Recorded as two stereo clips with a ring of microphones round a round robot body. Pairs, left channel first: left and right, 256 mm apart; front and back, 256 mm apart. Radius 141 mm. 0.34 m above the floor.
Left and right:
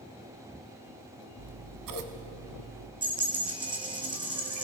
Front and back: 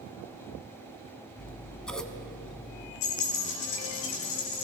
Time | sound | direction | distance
1.4 | scissors | 85° right | 0.9 m
3.0 | a dropped coin | 15° right | 2 m